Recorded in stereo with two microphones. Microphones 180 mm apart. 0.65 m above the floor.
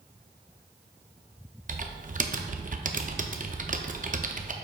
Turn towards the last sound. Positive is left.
turn(degrees=-50)  # may be behind; listen again after turning